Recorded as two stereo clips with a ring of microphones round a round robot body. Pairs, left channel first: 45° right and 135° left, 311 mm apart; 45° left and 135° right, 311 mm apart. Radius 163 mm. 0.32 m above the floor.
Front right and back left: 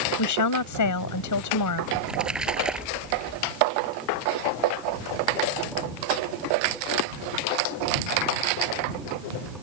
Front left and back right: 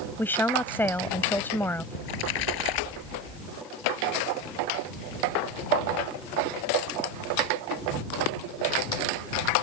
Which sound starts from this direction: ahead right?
A woman speaking, at 0.2 s.